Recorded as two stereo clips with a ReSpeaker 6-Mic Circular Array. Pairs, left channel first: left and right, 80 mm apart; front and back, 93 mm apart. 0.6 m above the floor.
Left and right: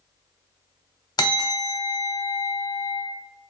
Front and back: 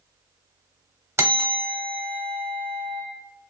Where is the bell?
120° left, 0.8 m.